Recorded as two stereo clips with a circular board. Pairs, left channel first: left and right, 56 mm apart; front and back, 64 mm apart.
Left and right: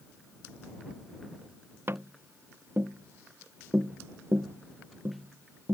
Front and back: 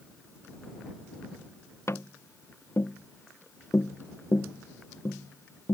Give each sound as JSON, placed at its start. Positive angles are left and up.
{"t": 1.9, "sound": "tapping", "azimuth_deg": -45}